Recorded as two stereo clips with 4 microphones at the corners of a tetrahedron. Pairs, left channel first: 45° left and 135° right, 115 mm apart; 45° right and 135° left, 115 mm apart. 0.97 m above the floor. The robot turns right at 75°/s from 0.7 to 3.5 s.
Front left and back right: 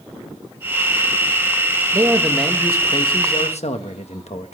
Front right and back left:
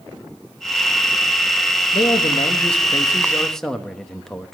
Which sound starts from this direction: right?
A man speaking, at 1.9 s.